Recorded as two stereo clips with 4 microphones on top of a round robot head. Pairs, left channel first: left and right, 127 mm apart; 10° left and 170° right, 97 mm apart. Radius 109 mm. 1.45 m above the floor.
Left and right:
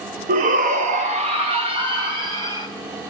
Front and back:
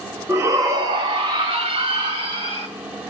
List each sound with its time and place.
0.3 s a shout: 100° right, 0.6 m; by 2.7 s 155° right, 1.5 m